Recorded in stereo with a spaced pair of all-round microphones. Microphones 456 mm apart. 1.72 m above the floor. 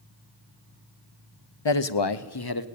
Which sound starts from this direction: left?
A man speaking, at 1.6 s.